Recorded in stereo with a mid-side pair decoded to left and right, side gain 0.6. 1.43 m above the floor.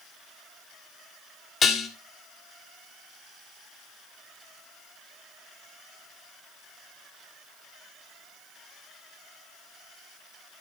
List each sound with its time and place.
1.6 s dishes clattering: 40° left, 2 m